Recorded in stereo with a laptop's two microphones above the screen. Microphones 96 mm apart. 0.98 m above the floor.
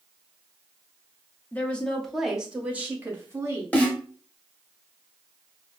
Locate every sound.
1.5 s a woman speaking: 20° left (ahead or behind), 1.2 m; by 3.6 s 30° right (ahead or behind), 1.7 m
3.7 s a snare drum: 15° left (ahead or behind), 0.7 m